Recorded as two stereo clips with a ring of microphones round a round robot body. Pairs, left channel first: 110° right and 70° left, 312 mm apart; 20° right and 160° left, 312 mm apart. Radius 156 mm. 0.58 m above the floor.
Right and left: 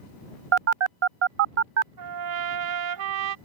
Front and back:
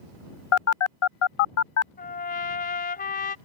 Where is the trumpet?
40° left.